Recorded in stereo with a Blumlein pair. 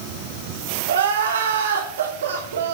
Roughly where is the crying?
Ahead right.